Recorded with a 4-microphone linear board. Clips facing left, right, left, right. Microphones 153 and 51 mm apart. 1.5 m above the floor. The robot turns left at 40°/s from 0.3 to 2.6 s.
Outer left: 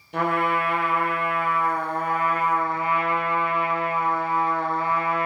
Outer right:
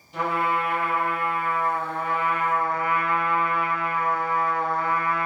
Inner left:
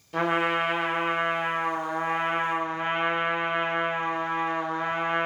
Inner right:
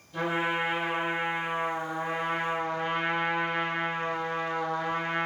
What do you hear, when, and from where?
0.1 s a trumpet: 120° left, 0.6 m; by 5.3 s 25° left, 0.6 m